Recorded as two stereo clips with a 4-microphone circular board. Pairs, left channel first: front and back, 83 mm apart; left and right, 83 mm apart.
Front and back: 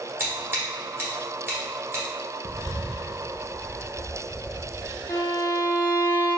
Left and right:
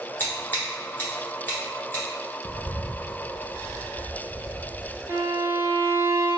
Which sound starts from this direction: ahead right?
A violin, at 5.1 s.